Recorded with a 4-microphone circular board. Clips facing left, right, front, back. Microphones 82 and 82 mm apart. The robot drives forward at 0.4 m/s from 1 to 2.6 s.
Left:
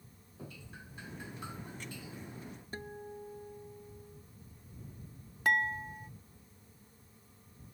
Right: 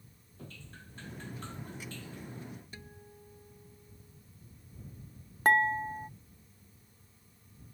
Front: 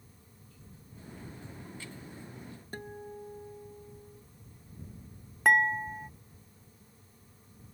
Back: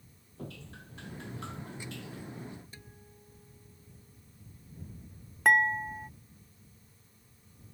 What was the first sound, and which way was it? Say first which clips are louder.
Dripping: left 1 dB, back 13 dB; 170° left.